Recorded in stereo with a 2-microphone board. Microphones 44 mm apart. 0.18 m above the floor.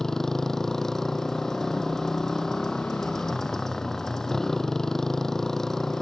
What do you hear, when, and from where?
0.0 s a motorcycle: 10° left (ahead or behind)